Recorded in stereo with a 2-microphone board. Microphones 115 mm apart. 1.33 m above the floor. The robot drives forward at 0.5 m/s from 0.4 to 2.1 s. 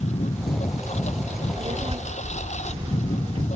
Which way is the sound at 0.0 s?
80° left.